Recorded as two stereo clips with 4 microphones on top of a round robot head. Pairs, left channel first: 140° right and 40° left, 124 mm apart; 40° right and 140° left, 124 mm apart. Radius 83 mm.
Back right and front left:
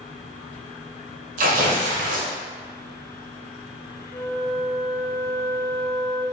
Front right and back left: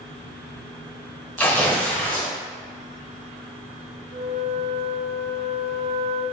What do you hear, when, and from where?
1.4 s tearing paper: 35° left, 0.9 m
4.1 s a flute: 140° left, 0.8 m